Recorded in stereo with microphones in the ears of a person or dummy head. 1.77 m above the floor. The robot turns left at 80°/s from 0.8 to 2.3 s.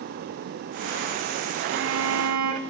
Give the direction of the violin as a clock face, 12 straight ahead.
2 o'clock.